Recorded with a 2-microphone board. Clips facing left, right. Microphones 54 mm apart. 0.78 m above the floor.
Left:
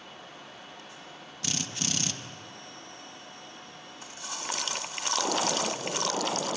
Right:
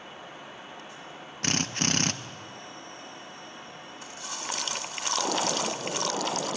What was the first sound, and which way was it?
A drill, 55° right (ahead or behind).